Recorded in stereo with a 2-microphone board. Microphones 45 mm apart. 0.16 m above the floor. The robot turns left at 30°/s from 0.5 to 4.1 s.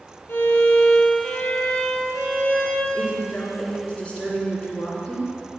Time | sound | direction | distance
0.3 | a violin | 95° left | 1.2 m
2.9 | a woman speaking | 65° left | 2 m